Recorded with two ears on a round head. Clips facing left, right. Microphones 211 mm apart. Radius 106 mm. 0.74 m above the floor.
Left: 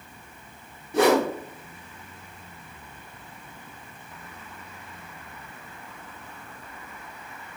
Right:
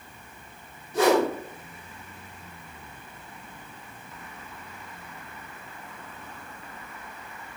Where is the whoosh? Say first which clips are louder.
Left 1 dB; 50° left (ahead or behind), 0.6 m.